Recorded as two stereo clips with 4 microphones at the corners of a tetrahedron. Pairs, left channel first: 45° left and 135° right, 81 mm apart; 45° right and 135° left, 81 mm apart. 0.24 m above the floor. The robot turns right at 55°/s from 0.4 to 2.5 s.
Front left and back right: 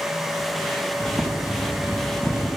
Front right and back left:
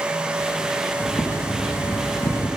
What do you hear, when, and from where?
1.0 s boiling: 100° right, 3 m; by 2.5 s 20° right, 3 m